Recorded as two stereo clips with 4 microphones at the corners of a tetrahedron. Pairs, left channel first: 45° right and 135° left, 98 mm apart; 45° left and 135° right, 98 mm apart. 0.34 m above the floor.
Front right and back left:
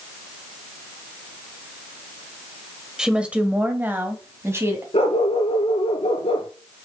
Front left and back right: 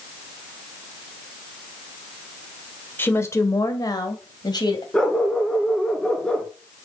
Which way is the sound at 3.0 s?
60° left.